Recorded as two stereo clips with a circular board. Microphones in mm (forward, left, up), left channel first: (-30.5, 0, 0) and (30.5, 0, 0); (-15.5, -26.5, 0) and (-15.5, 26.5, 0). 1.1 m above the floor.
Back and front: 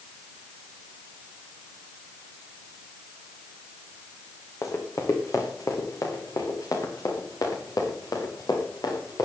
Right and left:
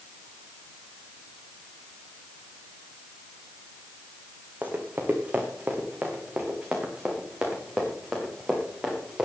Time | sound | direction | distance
4.6 | running footsteps | 150° left | 3 m